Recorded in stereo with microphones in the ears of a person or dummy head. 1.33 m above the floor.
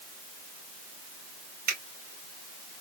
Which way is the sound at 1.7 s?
50° right (ahead or behind).